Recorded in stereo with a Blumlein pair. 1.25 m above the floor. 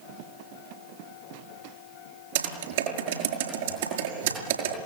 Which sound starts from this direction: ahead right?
Typing on a keyboard, at 2.4 s.